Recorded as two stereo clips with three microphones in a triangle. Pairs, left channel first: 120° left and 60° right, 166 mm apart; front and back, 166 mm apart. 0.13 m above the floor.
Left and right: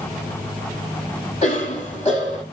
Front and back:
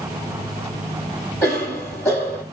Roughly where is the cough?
Left.